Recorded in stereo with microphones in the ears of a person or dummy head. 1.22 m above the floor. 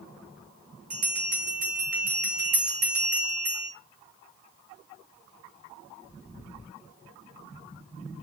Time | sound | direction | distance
0.9 | a bell | 40° right (ahead or behind) | 1.3 m